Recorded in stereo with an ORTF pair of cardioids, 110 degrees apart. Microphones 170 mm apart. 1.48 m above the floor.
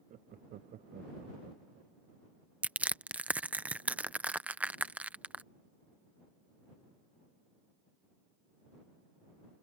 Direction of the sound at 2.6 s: 10° right.